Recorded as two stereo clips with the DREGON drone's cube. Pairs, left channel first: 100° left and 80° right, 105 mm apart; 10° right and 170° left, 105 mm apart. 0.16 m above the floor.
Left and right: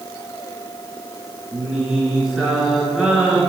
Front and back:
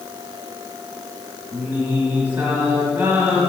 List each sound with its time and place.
1.5 s singing: 155° right, 1.7 m